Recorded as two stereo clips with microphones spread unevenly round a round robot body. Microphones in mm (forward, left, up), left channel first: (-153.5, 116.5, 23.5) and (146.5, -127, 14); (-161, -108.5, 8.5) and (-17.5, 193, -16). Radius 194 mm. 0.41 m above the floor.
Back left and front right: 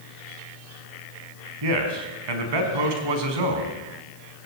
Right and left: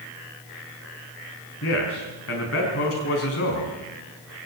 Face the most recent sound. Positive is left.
turn(degrees=-55)